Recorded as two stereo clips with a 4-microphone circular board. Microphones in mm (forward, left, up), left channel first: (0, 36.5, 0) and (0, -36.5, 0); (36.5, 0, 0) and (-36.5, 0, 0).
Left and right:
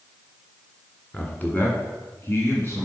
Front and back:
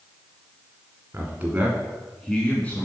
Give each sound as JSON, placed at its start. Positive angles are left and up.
{"t": 1.1, "sound": "a man speaking", "azimuth_deg": 145, "distance_m": 1.8}